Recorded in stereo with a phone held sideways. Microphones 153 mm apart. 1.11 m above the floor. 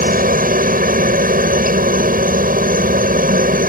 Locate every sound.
0.0 s a helicopter: 65° right (ahead or behind)